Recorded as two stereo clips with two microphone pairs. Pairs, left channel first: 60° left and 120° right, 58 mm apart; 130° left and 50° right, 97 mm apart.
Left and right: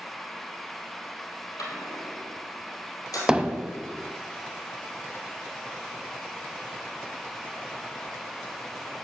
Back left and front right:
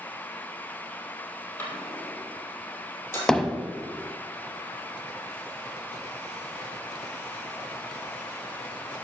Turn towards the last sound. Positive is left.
turn(degrees=-155)